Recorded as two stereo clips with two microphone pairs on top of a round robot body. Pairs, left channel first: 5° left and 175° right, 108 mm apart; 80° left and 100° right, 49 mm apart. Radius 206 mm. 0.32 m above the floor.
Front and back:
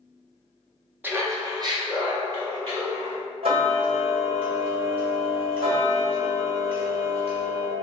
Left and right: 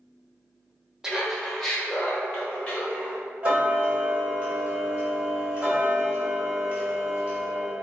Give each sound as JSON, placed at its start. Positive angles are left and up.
{"t": 1.0, "sound": "laughter", "azimuth_deg": -150, "distance_m": 1.1}
{"t": 3.4, "sound": "ticking", "azimuth_deg": -165, "distance_m": 2.0}